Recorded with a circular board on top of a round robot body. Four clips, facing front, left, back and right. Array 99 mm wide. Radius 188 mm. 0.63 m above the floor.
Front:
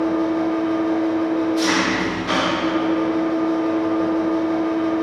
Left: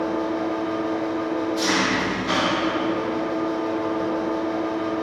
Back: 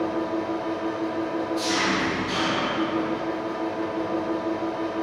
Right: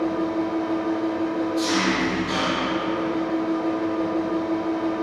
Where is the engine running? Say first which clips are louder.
Even, front 7 dB; 25° left, 0.9 m.